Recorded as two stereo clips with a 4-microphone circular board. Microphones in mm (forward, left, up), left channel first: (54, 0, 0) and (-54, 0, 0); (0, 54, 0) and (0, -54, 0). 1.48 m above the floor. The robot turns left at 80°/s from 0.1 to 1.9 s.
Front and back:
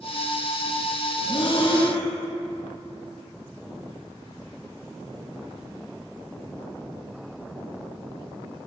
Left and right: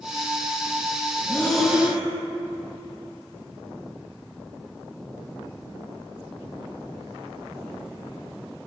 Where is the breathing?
25° left, 0.8 m; by 2.0 s 25° right, 0.8 m.